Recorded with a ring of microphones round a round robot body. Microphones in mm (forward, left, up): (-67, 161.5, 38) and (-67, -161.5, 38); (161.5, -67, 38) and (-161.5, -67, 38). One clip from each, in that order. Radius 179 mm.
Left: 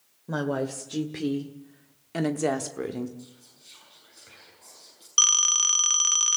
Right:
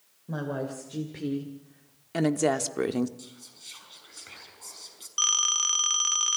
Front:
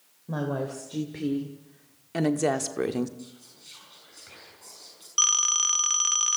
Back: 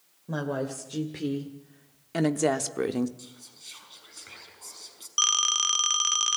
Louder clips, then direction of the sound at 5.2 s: Left 4 dB, even; 100° left.